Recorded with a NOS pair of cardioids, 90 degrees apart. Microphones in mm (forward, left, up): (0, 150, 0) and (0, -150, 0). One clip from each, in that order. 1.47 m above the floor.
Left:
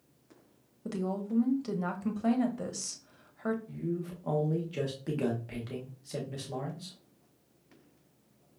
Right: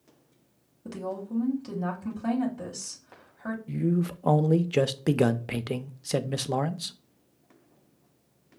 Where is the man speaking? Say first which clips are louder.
Right 7 dB; 55° right, 0.5 m.